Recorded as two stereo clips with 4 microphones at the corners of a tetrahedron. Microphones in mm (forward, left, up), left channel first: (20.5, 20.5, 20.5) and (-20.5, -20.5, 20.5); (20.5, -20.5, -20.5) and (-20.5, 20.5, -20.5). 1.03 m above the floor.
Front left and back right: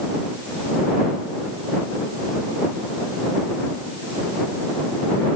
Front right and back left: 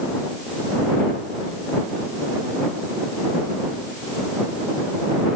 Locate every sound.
Only background noise.